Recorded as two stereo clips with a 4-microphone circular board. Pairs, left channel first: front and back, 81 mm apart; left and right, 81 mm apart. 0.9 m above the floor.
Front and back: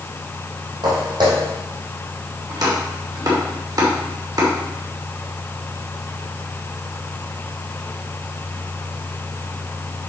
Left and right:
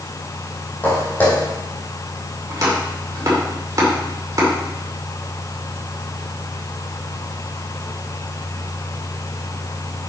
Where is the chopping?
140° right, 2.5 m.